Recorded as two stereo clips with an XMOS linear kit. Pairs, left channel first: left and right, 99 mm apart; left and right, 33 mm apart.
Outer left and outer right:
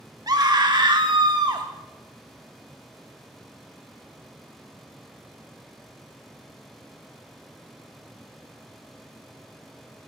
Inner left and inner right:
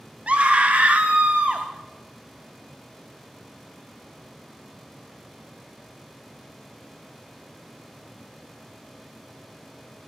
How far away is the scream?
About 1.1 m.